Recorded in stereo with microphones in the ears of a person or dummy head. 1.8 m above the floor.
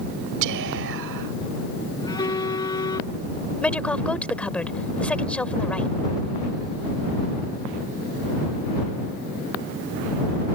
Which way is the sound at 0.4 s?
65° right (ahead or behind).